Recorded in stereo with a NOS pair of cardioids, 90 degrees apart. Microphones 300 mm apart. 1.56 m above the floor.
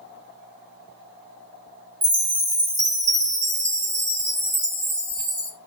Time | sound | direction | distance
2.0 | a chime | 40° right | 1.4 m